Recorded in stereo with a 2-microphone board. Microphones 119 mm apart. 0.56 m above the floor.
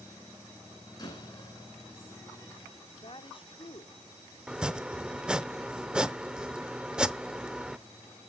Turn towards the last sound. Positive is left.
turn(degrees=-10)  # may be behind; listen again after turning